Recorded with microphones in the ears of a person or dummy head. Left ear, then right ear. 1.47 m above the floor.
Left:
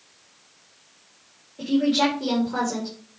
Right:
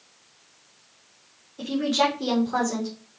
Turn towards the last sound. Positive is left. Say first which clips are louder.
# left 1 dB
turn(degrees=-45)  # may be behind; listen again after turning